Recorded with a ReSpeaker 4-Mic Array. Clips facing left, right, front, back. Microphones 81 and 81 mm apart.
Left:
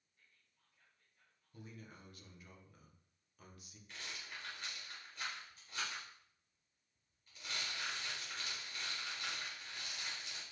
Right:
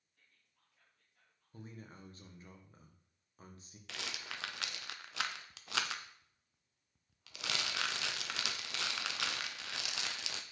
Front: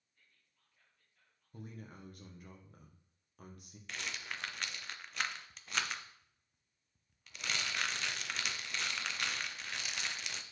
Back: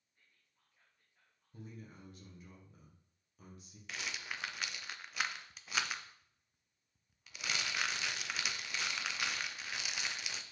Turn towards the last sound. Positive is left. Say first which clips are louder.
# right 5 dB, even
turn(degrees=-90)